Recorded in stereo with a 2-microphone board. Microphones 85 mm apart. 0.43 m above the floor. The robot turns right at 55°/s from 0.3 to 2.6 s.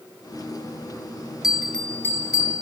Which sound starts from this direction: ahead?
A bell, at 1.4 s.